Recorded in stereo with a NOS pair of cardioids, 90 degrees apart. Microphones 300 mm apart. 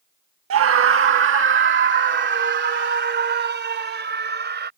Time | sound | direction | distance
0.5 | a scream | 55° right | ?